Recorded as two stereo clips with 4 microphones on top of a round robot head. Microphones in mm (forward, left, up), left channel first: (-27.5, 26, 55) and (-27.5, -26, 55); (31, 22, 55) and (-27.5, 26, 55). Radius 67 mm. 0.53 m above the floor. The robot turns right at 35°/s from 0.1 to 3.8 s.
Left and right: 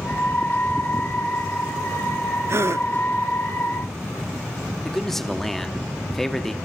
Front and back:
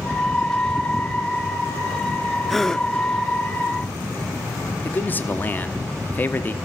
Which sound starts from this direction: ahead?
A man speaking, at 4.8 s.